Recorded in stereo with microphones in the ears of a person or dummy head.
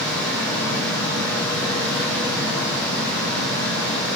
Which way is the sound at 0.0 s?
5° left (ahead or behind).